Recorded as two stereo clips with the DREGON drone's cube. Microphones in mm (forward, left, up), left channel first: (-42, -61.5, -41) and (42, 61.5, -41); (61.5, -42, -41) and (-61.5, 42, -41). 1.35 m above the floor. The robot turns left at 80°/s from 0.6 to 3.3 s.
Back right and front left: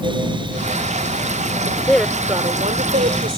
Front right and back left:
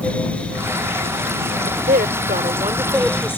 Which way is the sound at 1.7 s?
175° left.